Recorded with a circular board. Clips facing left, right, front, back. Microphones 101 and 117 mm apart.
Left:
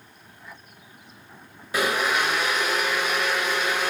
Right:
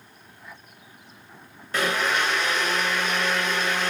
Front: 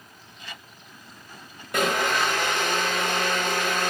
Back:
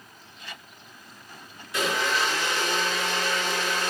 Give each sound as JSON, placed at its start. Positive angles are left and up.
{"t": 1.7, "sound": "a blender", "azimuth_deg": 10, "distance_m": 0.8}